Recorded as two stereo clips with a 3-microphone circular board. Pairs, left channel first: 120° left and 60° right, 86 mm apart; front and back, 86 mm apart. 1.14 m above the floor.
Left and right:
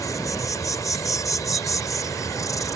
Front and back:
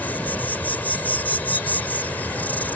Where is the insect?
70° left.